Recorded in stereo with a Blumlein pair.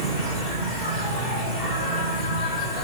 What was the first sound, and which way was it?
An insect, 15° right.